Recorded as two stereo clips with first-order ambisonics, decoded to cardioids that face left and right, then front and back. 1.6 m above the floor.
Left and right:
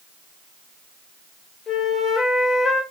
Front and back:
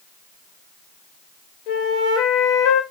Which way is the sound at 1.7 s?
25° left.